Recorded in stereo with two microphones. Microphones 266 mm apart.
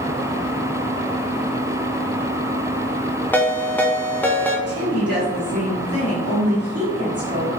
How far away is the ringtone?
About 0.5 m.